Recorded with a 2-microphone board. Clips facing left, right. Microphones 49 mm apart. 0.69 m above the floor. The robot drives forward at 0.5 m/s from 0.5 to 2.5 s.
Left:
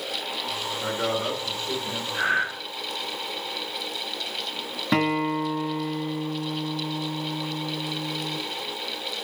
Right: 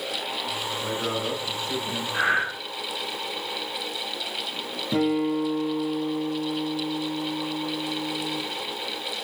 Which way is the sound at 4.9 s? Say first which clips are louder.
Even; 60° left (ahead or behind).